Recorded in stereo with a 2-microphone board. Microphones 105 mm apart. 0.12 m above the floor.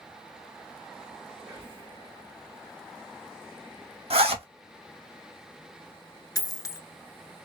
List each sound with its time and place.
1.4 s whispering: 20° right (ahead or behind), 1.8 m
4.1 s a zipper: 70° right (ahead or behind), 0.8 m
6.3 s a dropped coin: 35° left (ahead or behind), 0.5 m